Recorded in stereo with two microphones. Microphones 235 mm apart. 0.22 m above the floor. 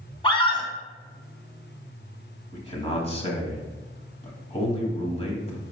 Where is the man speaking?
25° left (ahead or behind), 1.6 m.